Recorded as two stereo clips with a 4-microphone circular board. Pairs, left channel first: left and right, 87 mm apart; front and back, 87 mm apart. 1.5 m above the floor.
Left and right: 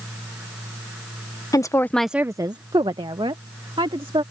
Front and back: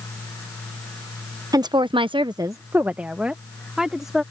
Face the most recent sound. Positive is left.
turn(degrees=-95)